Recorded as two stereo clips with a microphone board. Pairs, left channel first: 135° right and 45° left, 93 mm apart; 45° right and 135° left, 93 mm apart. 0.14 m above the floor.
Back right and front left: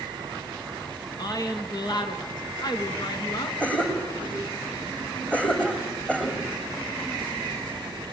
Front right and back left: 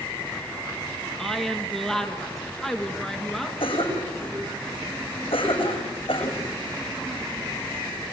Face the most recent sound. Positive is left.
turn(degrees=-60)